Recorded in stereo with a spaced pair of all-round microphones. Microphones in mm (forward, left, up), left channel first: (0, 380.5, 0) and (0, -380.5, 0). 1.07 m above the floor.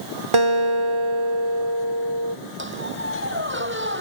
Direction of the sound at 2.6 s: 15° right (ahead or behind).